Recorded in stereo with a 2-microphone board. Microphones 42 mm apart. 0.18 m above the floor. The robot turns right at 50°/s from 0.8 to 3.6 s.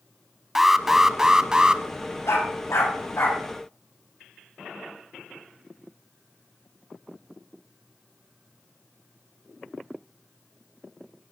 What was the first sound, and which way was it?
An alarm, 5° right (ahead or behind).